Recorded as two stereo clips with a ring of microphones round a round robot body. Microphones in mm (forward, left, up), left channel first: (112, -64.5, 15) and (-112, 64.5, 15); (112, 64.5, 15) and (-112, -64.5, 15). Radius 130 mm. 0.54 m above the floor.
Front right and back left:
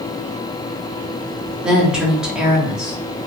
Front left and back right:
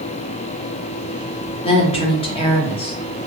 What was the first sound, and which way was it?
A woman speaking, 65° left.